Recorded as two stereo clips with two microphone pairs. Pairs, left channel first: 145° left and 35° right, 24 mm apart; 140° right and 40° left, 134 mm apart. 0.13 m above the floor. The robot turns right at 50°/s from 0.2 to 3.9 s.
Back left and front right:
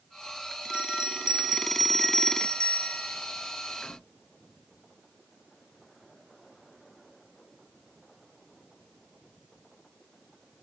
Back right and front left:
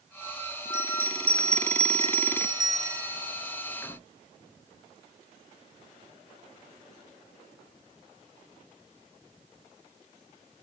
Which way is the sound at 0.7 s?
5° right.